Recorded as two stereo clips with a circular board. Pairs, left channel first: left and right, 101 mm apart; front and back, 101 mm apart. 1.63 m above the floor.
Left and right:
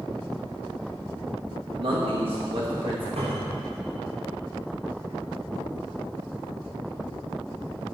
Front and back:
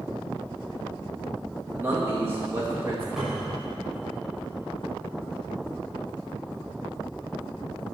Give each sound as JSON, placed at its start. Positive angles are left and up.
{"t": 1.7, "sound": "a man speaking", "azimuth_deg": -115, "distance_m": 2.5}
{"t": 3.2, "sound": "a cupboard door", "azimuth_deg": -95, "distance_m": 6.0}